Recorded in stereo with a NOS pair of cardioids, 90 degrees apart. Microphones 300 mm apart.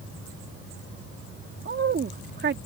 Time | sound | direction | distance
1.6 | a woman speaking | 40° right | ?